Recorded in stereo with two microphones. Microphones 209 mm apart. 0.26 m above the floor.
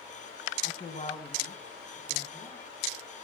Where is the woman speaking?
40° left (ahead or behind), 2 m; by 2.6 s 10° left (ahead or behind), 3.5 m.